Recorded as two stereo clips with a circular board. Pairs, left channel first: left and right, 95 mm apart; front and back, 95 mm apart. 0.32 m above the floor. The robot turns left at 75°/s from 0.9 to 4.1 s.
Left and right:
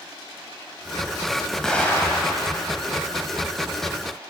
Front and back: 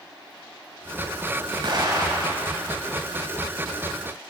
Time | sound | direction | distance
1.6 | an explosion | 175° left | 1.3 m